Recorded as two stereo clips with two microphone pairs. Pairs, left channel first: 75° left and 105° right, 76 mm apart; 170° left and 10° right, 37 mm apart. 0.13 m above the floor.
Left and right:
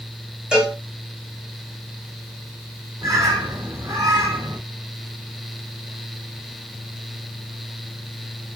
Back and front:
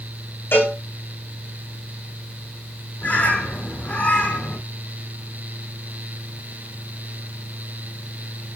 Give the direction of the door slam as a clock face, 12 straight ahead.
No door slam in this recording.